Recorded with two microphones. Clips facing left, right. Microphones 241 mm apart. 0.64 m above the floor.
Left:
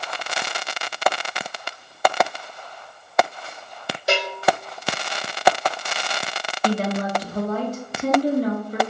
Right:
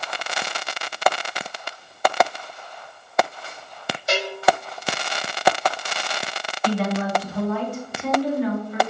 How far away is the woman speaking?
About 0.7 m.